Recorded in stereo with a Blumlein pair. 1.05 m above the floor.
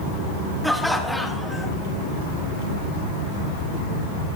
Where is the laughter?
Straight ahead, 1.0 m.